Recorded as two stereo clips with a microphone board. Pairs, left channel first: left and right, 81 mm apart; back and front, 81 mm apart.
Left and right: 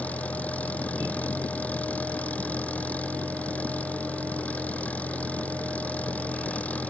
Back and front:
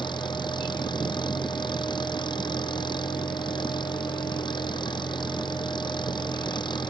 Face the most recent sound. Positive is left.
turn(degrees=160)